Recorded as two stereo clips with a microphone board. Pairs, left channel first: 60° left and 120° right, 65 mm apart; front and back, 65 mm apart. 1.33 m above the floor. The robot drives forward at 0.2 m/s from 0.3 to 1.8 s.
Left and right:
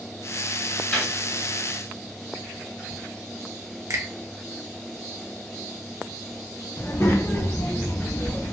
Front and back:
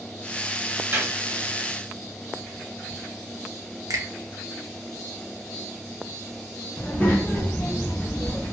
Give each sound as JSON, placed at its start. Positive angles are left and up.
{"t": 0.9, "sound": "a gunshot", "azimuth_deg": 130, "distance_m": 1.5}
{"t": 3.9, "sound": "a finger snap", "azimuth_deg": -155, "distance_m": 0.6}
{"t": 6.8, "sound": "a child speaking", "azimuth_deg": 50, "distance_m": 0.6}